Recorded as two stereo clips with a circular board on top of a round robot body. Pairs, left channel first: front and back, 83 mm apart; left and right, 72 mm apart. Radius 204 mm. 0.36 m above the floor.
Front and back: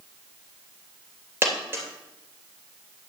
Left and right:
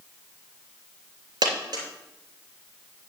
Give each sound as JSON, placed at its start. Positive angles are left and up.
{"t": 1.4, "sound": "a dropped coin", "azimuth_deg": -115, "distance_m": 3.0}